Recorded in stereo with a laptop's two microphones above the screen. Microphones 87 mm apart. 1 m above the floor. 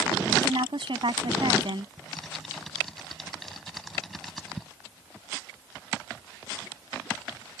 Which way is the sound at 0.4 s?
70° right (ahead or behind).